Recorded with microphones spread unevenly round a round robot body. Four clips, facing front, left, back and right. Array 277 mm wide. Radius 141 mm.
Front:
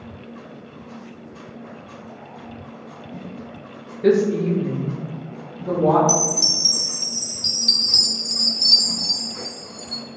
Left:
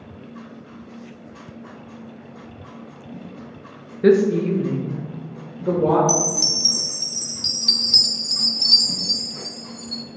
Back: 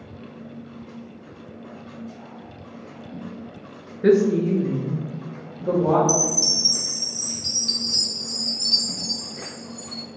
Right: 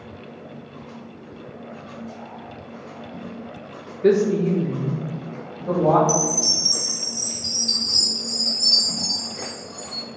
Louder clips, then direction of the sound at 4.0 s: Left 2 dB, even; 85° left.